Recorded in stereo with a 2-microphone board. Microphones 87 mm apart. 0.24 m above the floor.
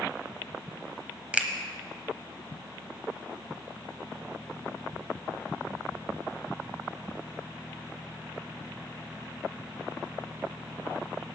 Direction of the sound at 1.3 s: 15° right (ahead or behind).